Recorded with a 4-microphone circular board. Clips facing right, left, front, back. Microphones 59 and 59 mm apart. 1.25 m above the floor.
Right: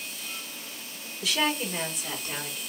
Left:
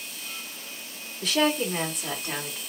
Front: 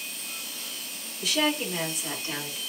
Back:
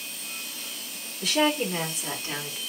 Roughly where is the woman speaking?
Behind left.